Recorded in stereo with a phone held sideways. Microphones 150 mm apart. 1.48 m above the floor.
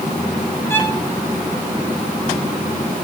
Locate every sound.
0.7 s a violin: 15° left (ahead or behind), 2.5 m